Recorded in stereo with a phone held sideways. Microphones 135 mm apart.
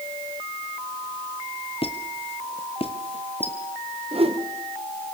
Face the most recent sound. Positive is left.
turn(degrees=-50)  # may be behind; listen again after turning